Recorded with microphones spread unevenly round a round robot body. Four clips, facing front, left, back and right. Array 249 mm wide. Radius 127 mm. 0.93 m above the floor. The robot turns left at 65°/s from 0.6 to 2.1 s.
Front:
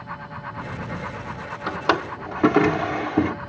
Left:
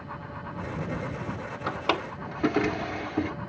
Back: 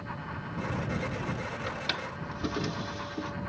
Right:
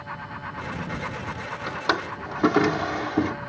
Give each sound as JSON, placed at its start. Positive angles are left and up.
{"t": 1.7, "sound": "a drawer", "azimuth_deg": 5}